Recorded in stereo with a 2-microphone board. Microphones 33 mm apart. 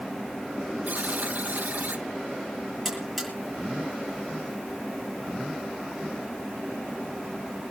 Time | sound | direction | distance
0.9 | a buzzer | 70° right (ahead or behind) | 1.5 m
2.9 | a buzzer | 10° left (ahead or behind) | 6.5 m